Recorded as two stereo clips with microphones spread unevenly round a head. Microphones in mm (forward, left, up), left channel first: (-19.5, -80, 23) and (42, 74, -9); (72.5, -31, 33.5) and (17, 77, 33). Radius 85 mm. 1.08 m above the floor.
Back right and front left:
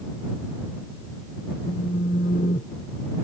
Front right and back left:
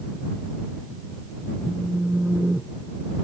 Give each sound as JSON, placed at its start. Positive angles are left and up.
{"t": 1.6, "sound": "a phone buzzing", "azimuth_deg": -160}